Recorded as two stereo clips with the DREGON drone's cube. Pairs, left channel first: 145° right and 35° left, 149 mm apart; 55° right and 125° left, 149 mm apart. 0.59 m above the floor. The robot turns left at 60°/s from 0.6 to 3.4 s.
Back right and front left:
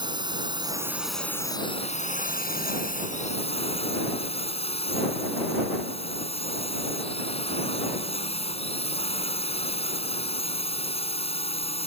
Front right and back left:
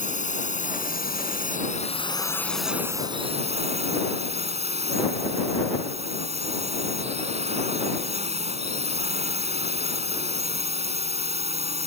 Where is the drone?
25° right; by 11.9 s 165° left.